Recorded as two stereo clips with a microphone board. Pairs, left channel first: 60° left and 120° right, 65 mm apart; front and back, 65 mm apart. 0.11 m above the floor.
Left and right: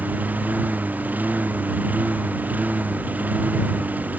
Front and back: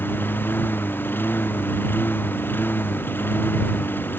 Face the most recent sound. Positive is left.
turn(degrees=-55)